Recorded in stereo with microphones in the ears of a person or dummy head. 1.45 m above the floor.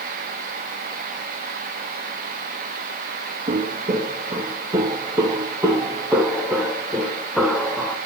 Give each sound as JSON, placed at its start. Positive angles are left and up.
{"t": 3.5, "sound": "footsteps", "side_deg": -35, "distance_m": 3.5}